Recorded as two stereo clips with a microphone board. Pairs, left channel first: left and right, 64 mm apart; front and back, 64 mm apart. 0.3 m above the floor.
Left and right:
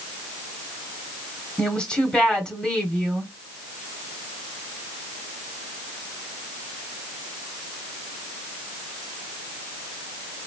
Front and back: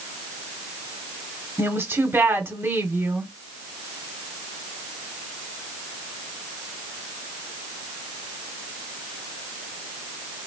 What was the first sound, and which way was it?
A woman speaking, 160° left.